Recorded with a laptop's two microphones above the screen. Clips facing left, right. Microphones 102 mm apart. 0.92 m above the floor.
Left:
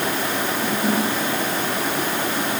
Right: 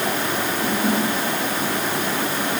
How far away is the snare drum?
I don't hear a snare drum.